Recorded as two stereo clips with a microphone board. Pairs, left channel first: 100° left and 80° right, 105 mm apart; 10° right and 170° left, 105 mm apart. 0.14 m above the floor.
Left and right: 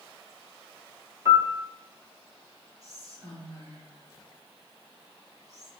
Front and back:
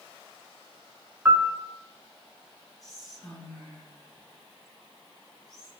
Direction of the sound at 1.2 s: 125° right.